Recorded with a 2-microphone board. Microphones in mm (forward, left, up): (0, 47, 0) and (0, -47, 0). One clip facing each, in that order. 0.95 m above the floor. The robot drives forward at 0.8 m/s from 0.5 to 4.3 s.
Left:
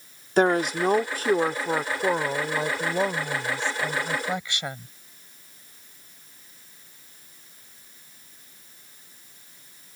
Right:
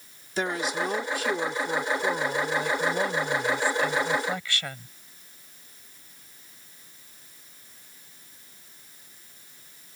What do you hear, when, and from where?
0.4 s a woman speaking: 55° left (ahead or behind); by 4.9 s 20° left (ahead or behind)